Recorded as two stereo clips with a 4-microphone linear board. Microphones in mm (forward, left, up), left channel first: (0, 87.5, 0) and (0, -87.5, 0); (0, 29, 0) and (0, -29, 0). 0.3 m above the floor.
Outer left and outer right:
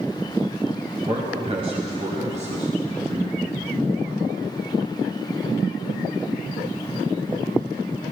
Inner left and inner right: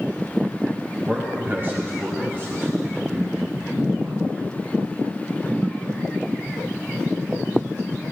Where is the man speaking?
30° right (ahead or behind), 1.6 m; by 4.2 s 50° right (ahead or behind), 3 m.